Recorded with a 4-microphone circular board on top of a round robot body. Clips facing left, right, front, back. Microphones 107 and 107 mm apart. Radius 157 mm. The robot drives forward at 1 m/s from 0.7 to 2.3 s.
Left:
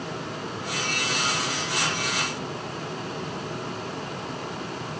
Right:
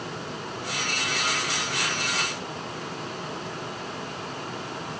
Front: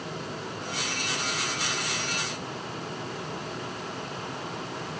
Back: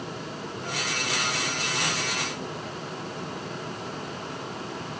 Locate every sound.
Only background noise.